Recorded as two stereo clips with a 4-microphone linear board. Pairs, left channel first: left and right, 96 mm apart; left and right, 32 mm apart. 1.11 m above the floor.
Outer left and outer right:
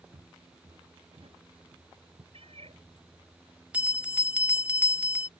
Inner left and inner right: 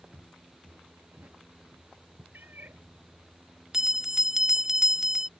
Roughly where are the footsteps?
Right.